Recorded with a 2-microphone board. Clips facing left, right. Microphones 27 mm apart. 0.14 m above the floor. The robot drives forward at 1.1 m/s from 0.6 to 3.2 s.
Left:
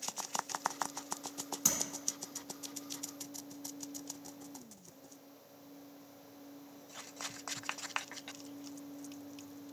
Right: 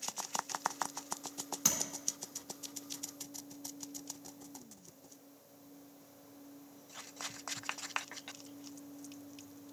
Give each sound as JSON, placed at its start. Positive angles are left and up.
{"t": 1.6, "sound": "tapping", "side_deg": -15, "distance_m": 1.5}